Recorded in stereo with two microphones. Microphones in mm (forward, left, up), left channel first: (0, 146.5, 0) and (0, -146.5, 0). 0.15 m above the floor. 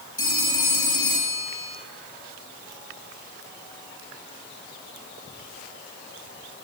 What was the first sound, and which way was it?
A phone ringing, 50° left (ahead or behind).